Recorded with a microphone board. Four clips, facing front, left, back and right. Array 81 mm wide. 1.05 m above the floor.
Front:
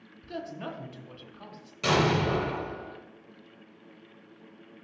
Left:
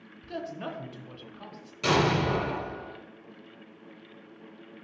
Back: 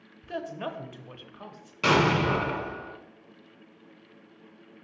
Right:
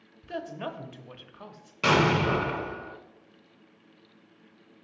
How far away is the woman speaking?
About 0.7 m.